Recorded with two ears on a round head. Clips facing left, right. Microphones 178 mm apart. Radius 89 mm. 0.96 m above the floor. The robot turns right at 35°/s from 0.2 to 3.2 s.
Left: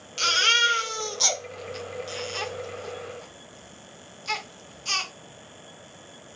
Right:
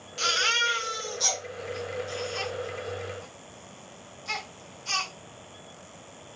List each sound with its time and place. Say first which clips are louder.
0.2 s a baby crying: left 1 dB; 30° left (ahead or behind), 0.7 m; by 5.1 s 45° left (ahead or behind), 0.7 m